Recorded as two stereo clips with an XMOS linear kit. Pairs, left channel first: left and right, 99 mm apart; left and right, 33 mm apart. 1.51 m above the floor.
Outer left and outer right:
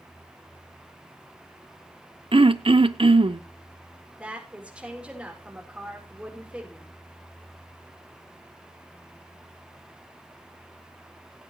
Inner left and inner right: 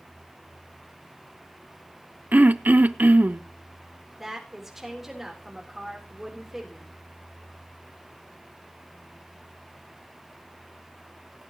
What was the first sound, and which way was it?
Throat clearing, 60° right (ahead or behind).